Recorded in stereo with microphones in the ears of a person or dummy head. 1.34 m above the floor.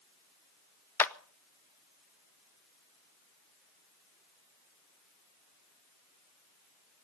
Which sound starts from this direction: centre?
A clap, at 1.0 s.